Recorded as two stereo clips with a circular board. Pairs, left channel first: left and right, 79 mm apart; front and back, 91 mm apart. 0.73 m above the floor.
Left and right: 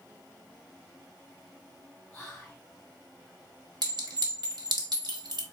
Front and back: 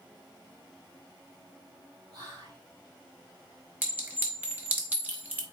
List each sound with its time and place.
2.1 s whispering: 165° left, 1.6 m
3.8 s a clink: 110° right, 1.3 m